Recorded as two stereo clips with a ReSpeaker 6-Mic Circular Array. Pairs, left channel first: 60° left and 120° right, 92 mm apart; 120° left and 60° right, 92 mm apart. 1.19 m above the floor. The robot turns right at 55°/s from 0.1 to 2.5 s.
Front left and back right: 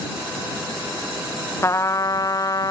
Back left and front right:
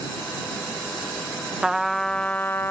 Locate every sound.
1.6 s a trumpet: 20° left; by 2.7 s 65° left